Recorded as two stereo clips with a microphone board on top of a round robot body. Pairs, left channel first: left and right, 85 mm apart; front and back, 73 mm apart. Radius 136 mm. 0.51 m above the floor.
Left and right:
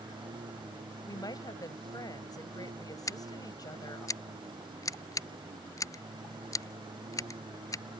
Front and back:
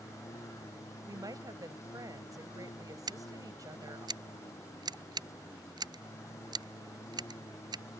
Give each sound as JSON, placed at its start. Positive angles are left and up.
{"t": 0.0, "sound": "a lawn mower", "azimuth_deg": -55}
{"t": 1.1, "sound": "a woman speaking", "azimuth_deg": 135}
{"t": 3.1, "sound": "scissors", "azimuth_deg": 145}